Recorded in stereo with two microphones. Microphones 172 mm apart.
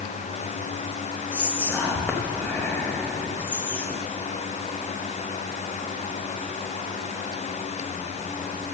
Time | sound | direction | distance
1.3 | whispering | 10° left (ahead or behind) | 0.9 m